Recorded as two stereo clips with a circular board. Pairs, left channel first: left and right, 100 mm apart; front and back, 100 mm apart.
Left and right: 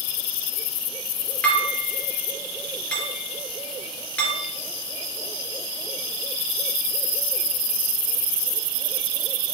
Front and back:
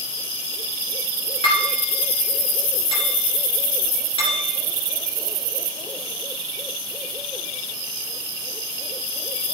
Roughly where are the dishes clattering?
Ahead.